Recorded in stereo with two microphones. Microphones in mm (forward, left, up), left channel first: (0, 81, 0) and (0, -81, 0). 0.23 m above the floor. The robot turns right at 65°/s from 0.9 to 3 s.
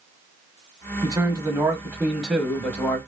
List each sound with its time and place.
1.0 s a man speaking: 20° right (ahead or behind), 1.1 m; by 3.0 s 15° left (ahead or behind), 1.1 m